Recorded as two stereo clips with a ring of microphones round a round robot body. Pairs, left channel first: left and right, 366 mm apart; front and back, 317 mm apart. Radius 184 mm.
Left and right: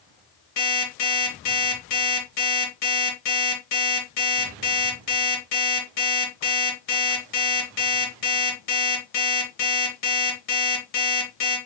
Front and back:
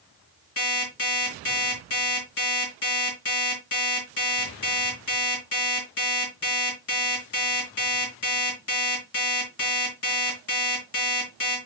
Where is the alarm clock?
45° left, 5 m.